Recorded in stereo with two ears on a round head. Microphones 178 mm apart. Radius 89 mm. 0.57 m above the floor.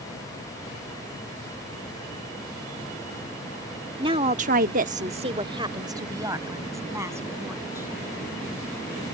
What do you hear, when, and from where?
4.0 s a woman speaking: 25° right (ahead or behind); by 8.0 s 10° right (ahead or behind)